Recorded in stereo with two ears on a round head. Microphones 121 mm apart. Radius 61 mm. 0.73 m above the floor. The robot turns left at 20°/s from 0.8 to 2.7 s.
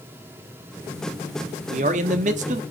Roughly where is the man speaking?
Right.